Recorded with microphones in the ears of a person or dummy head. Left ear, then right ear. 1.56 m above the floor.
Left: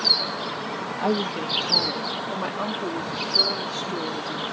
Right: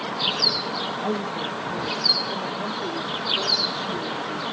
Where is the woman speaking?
65° left (ahead or behind); by 4.4 s 40° left (ahead or behind).